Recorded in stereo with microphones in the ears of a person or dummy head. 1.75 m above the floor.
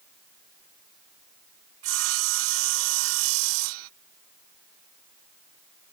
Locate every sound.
1.8 s sawing: 80° right